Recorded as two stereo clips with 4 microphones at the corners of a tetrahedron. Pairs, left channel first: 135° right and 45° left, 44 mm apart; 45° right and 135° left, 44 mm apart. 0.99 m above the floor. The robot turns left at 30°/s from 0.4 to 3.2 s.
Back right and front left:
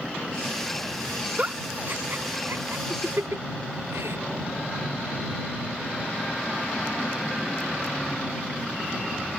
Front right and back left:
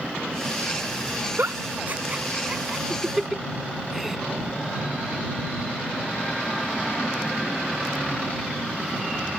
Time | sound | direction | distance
1.4 | a giggle | 105° left | ?